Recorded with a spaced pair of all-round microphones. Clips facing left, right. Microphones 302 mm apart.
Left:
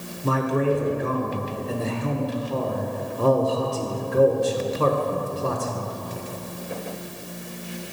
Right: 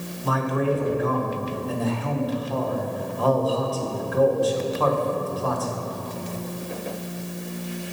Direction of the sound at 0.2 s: 30° left (ahead or behind).